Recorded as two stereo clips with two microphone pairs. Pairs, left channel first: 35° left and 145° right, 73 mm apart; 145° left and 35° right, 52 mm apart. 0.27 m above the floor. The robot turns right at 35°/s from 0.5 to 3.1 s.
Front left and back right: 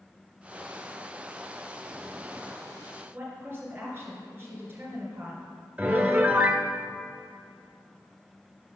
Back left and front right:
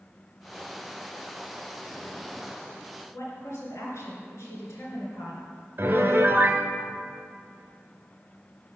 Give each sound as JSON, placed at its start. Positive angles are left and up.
{"t": 3.1, "sound": "a woman speaking", "azimuth_deg": 160, "distance_m": 3.0}
{"t": 5.8, "sound": "a piano", "azimuth_deg": -80, "distance_m": 0.8}